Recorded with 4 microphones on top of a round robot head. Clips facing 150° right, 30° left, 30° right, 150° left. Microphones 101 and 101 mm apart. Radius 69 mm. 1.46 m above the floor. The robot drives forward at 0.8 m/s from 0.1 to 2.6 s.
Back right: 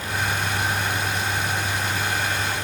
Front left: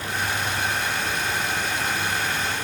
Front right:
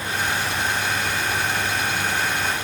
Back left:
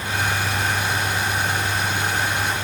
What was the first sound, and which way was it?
Only background noise.